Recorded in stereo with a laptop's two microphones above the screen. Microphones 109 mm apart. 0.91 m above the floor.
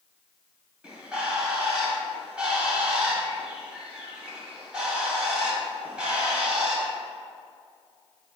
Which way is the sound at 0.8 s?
10° right (ahead or behind).